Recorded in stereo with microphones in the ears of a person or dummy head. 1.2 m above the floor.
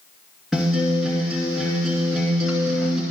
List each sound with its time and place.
0.5 s a guitar: centre (ahead or behind), 2.5 m